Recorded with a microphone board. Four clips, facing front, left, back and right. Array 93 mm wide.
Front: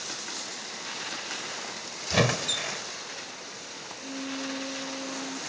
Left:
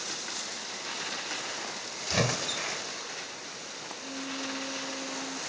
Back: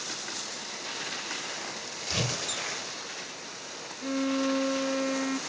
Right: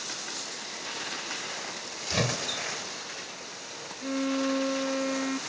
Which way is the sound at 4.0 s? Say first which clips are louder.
Right 10 dB, back 8 dB; 135° right.